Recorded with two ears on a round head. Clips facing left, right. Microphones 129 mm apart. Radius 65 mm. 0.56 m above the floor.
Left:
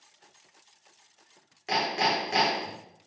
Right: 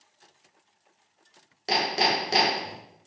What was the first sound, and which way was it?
Hammering, 40° right (ahead or behind).